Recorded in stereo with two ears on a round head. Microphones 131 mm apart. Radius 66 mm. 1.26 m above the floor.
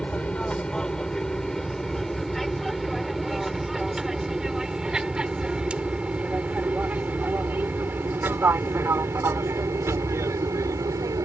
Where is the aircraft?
5° left (ahead or behind); by 11.2 s 25° right (ahead or behind).